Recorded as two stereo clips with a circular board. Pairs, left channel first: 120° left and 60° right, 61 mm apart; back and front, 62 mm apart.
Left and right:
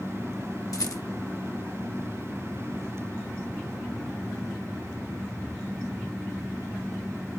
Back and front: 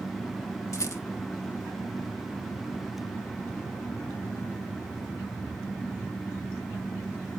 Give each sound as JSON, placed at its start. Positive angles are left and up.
{"t": 0.7, "sound": "a rattle", "azimuth_deg": 140, "distance_m": 0.7}